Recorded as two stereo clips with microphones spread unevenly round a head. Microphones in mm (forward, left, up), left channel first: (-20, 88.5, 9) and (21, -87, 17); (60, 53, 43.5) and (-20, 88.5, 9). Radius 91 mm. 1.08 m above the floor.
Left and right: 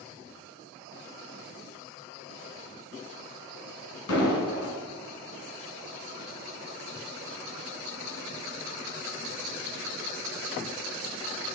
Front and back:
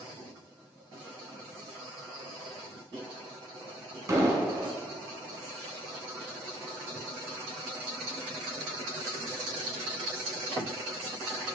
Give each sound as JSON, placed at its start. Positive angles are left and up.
{"t": 4.1, "sound": "an explosion", "azimuth_deg": 100, "distance_m": 2.0}